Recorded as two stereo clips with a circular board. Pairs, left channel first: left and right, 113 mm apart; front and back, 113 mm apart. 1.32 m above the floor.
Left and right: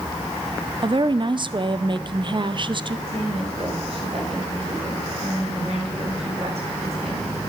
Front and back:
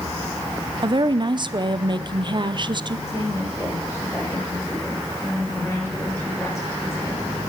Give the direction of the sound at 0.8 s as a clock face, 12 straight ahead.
4 o'clock.